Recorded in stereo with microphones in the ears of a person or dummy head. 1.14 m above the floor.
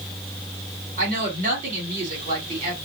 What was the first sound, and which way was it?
A woman speaking, 40° right (ahead or behind).